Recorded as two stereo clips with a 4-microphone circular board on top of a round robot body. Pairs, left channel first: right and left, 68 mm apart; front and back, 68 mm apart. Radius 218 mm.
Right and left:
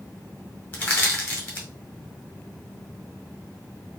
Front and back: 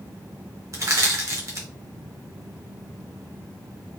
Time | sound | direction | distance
0.7 | crushing | 155° right | 1.8 m